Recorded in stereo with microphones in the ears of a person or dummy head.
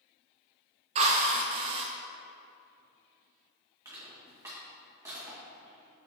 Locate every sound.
0.9 s a drill: 35° right (ahead or behind), 0.7 m
3.9 s crushing: 15° right (ahead or behind), 1.8 m